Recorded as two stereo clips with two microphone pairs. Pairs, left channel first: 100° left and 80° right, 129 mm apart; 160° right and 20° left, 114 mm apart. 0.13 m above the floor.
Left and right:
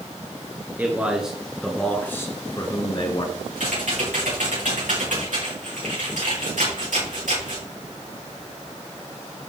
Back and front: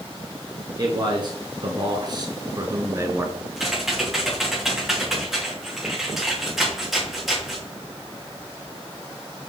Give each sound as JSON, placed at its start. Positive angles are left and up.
{"t": 0.8, "sound": "a man speaking", "azimuth_deg": -15, "distance_m": 1.7}
{"t": 3.6, "sound": "typing on a keyboard", "azimuth_deg": -65, "distance_m": 4.5}